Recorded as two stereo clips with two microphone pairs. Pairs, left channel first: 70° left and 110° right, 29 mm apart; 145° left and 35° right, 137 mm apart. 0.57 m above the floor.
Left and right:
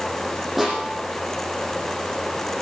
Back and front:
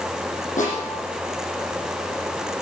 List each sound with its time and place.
0.6 s a snare drum: 165° left, 9 m